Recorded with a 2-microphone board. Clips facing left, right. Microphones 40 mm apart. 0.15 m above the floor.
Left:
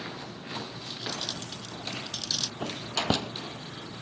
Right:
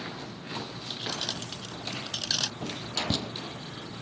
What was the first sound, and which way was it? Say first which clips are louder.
Keys jangling: right 2 dB; 45° right (ahead or behind).